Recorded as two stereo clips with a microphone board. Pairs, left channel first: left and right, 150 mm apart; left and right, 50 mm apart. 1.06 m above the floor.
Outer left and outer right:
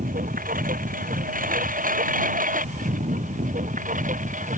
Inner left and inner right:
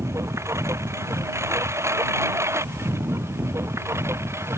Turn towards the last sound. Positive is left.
turn(degrees=-65)  # may be behind; listen again after turning